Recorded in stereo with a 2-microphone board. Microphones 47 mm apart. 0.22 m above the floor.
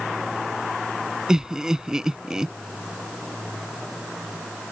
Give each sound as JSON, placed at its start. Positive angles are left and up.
{"t": 1.3, "sound": "laughter", "side_deg": -15}